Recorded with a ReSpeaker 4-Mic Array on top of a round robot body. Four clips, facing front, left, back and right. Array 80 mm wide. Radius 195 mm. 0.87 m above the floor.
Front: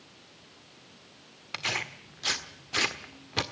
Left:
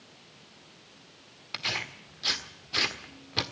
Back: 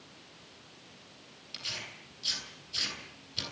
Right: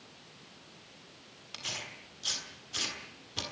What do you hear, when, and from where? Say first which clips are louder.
1.5 s tearing paper: left 8 dB, front 11 dB; 25° left, 1.6 m